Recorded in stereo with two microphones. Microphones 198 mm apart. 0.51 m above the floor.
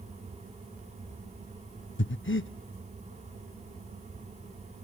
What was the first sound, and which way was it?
Breathing, 65° left (ahead or behind).